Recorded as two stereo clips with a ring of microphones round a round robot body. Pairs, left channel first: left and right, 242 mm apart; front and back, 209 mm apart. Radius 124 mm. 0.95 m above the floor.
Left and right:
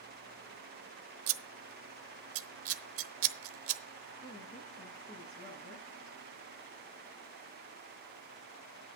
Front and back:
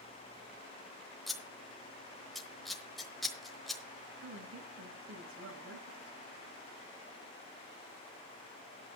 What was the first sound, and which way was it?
Scissors, 90° right.